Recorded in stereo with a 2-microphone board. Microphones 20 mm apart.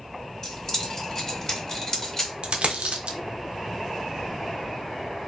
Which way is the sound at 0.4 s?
30° left (ahead or behind).